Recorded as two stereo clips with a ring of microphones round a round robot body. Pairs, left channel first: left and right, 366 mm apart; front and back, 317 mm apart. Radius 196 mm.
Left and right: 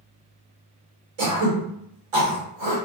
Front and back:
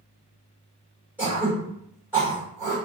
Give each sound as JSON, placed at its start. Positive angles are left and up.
{"t": 1.2, "sound": "throat clearing", "azimuth_deg": -95, "distance_m": 1.4}